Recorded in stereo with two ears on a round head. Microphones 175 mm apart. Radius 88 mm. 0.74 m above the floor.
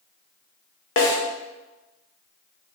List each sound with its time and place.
1.0 s a snare drum: 75° left (ahead or behind), 0.8 m